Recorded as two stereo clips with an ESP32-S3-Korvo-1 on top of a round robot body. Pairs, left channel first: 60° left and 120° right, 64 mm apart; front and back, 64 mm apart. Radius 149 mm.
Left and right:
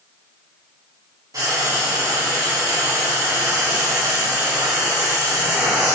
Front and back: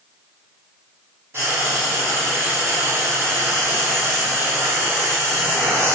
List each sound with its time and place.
1.3 s frying: 140° right, 0.8 m